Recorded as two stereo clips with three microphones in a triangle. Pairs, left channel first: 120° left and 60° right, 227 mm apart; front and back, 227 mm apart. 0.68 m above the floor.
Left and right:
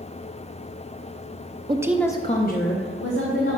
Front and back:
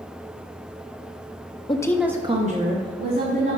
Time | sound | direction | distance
1.7 | a woman speaking | 30° right | 0.6 m